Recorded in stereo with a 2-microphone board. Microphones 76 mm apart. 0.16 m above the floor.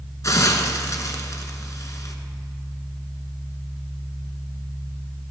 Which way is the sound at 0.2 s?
45° left (ahead or behind).